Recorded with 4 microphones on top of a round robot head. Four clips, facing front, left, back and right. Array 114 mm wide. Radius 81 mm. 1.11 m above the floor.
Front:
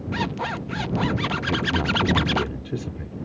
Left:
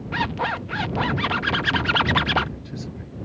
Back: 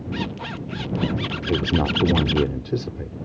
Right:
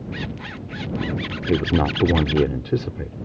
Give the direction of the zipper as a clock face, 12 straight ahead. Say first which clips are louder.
Left 12 dB, front 3 dB; 10 o'clock.